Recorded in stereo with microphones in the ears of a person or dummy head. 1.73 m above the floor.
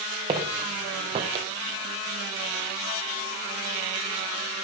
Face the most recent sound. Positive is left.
turn(degrees=-25)  # may be behind; listen again after turning